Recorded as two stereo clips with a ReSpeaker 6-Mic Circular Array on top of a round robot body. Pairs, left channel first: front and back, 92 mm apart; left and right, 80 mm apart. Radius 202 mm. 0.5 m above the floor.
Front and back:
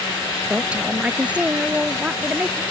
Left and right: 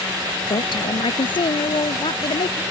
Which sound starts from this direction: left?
A woman speaking, at 0.5 s.